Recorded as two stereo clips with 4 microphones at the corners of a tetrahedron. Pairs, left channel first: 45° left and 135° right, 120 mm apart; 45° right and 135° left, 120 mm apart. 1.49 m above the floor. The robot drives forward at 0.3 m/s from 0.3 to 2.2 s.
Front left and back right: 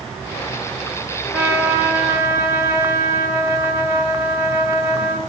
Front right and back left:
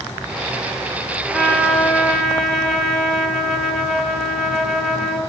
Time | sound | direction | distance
1.3 | a trumpet | 105° right | 1.2 m